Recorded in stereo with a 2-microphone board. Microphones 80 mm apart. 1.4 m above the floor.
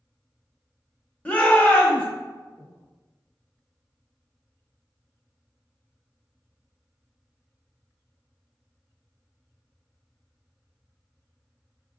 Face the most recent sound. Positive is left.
turn(degrees=15)  # may be behind; listen again after turning